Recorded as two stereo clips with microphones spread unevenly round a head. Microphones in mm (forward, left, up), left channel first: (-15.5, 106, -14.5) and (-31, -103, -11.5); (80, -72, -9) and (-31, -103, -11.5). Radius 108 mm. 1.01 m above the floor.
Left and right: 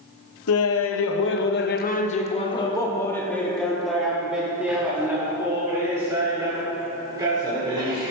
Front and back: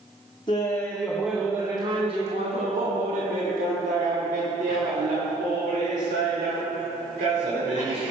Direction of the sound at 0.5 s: 85° left.